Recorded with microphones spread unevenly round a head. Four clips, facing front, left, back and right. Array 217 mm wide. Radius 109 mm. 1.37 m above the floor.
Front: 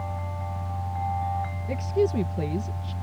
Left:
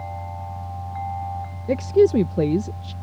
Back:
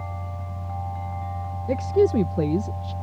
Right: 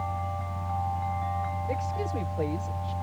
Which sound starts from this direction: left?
A woman speaking, at 1.7 s.